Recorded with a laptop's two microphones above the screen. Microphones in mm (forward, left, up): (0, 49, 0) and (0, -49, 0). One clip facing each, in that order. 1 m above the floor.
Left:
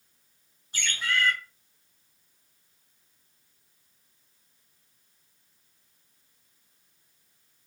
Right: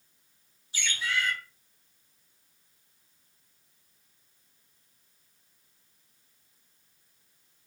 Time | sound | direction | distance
0.7 | a bird | 55° left (ahead or behind) | 5 m